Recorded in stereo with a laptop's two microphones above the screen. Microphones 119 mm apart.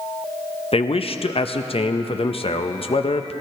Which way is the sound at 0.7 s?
55° left (ahead or behind).